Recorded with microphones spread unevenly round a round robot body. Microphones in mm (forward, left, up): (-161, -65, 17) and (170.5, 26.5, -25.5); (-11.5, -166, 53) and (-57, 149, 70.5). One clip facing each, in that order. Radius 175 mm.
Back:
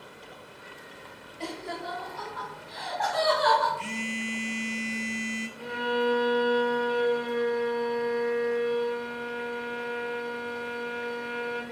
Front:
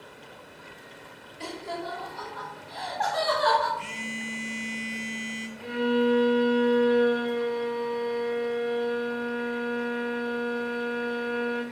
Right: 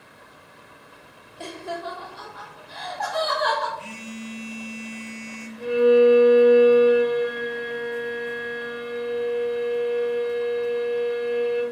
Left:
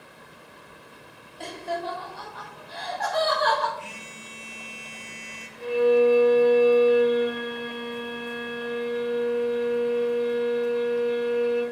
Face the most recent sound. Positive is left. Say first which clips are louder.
# front 5 dB, right 4 dB
turn(degrees=-155)